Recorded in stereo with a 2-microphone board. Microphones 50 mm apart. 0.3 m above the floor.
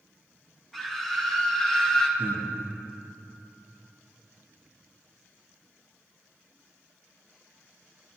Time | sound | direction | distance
0.7 | a scream | 5° left (ahead or behind) | 5.5 m
2.2 | breathing | 40° left (ahead or behind) | 4.5 m